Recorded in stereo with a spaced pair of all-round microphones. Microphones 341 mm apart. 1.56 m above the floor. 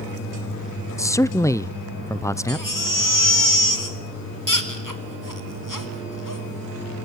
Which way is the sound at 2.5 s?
65° left (ahead or behind).